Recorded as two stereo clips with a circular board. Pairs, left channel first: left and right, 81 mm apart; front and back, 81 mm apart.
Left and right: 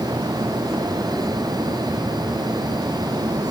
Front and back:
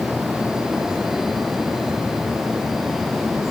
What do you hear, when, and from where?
Only background noise.